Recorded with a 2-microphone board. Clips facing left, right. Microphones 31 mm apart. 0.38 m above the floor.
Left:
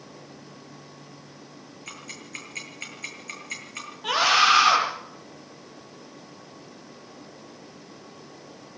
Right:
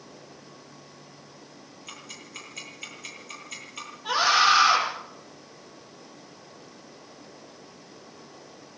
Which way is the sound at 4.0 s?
80° left.